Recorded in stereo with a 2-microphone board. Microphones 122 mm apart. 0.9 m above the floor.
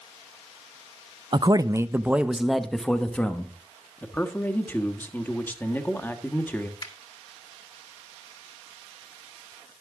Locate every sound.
1.3 s a man speaking: 40° right (ahead or behind), 0.6 m; by 3.5 s 15° left (ahead or behind), 1.3 m
4.0 s a man speaking: 15° left (ahead or behind), 1.2 m
6.8 s a finger snap: 40° left (ahead or behind), 2.0 m